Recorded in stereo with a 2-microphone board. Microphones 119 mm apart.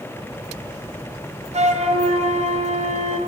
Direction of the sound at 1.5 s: 65° right (ahead or behind).